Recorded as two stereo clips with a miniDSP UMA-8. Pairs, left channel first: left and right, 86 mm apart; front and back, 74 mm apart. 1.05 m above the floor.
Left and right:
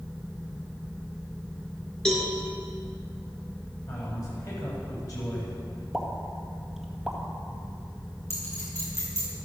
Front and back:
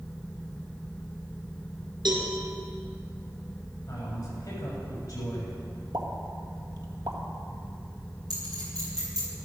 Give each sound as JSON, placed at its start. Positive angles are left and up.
{"t": 2.0, "sound": "a cowbell", "azimuth_deg": 170, "distance_m": 4.0}
{"t": 3.9, "sound": "a man speaking", "azimuth_deg": 40, "distance_m": 7.0}
{"t": 5.9, "sound": "a pop", "azimuth_deg": -175, "distance_m": 1.8}
{"t": 8.3, "sound": "a clink", "azimuth_deg": 145, "distance_m": 7.5}